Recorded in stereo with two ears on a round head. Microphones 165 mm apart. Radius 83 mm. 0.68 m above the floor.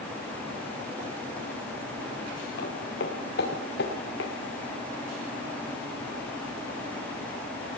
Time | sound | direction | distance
2.6 | footsteps | 60° left (ahead or behind) | 5 m